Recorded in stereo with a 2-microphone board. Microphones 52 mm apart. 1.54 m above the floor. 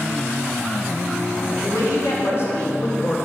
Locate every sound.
1.6 s a woman speaking: 65° left (ahead or behind), 2.5 m; by 3.2 s 45° left (ahead or behind), 2.5 m